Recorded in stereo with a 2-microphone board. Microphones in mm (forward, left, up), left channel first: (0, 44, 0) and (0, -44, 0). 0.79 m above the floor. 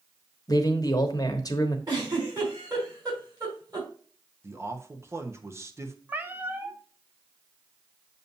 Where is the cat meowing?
20° right (ahead or behind), 0.8 m.